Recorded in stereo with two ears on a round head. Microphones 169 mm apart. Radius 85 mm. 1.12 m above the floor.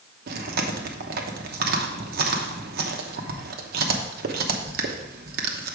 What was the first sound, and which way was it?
Chewing, 55° right (ahead or behind).